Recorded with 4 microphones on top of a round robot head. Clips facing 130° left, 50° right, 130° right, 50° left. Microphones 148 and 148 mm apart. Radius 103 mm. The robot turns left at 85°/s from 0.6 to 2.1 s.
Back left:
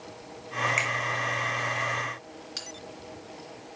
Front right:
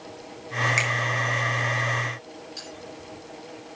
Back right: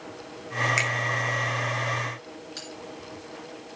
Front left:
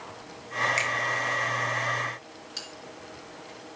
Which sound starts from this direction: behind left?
A bell, at 2.6 s.